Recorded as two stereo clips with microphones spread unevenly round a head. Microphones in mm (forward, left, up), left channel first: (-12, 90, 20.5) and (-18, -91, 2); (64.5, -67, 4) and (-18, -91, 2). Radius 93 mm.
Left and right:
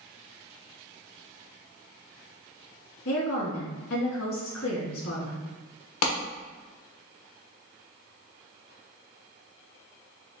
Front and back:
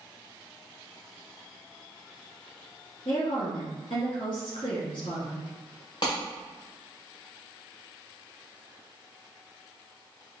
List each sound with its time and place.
3.0 s a woman speaking: 80° left, 1.9 m
6.0 s a clap: 85° left, 1.1 m